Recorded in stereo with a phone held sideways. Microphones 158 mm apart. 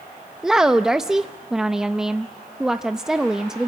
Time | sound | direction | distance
0.4 | a woman speaking | 5° right (ahead or behind) | 0.6 m